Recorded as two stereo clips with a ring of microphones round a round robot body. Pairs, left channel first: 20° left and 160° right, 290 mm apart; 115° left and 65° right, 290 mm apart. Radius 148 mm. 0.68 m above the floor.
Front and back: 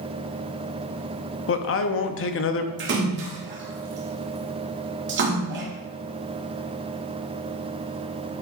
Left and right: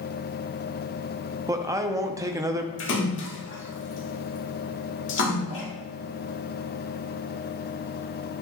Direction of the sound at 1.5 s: 5° left.